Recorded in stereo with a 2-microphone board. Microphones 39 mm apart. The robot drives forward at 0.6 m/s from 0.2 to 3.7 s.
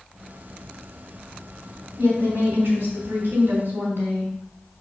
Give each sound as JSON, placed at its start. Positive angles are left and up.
{"t": 2.0, "sound": "a woman speaking", "side_deg": -75, "distance_m": 3.5}